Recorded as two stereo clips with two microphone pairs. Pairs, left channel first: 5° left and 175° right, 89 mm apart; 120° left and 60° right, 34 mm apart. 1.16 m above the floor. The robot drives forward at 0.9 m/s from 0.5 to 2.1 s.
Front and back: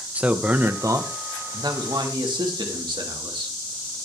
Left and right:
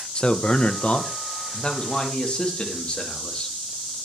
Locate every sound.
0.1 s a man speaking: 125° left, 0.6 m; by 3.5 s 170° left, 1.7 m